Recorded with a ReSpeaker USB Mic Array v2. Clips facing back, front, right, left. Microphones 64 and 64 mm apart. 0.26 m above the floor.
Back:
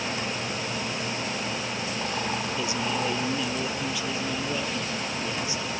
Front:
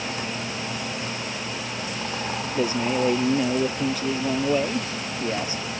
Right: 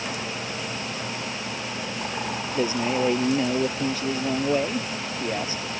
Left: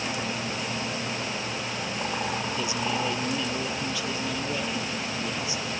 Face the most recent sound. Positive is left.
turn(degrees=-45)